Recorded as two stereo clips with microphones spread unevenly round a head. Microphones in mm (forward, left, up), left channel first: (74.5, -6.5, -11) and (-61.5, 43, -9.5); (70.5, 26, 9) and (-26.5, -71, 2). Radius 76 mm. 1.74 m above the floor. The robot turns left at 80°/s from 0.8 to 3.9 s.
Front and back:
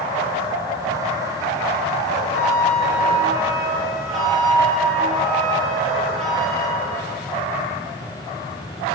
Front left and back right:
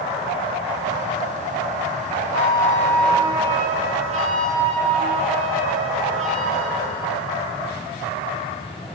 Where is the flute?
20° left, 2.0 m; by 6.8 s 110° right, 2.0 m.